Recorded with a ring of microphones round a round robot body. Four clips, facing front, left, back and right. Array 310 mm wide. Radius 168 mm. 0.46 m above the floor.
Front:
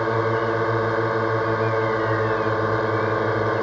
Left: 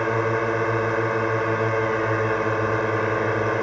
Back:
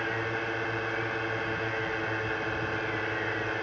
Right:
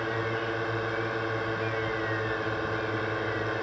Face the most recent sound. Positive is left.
turn(degrees=40)